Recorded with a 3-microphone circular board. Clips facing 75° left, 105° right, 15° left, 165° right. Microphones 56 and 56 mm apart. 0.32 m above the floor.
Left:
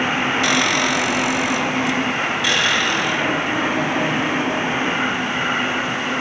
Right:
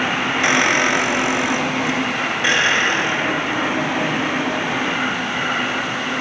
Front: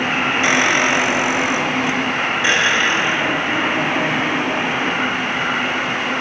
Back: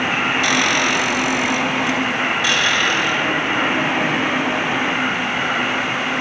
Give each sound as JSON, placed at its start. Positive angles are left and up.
{"t": 0.4, "sound": "a squeak", "azimuth_deg": -45, "distance_m": 1.1}